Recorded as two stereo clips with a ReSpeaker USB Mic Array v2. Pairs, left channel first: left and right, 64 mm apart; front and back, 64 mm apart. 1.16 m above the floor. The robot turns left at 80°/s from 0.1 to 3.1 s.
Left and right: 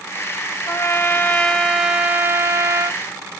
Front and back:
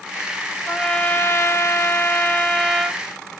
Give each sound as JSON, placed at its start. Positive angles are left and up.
{"t": 0.7, "sound": "a trumpet", "azimuth_deg": 75, "distance_m": 0.7}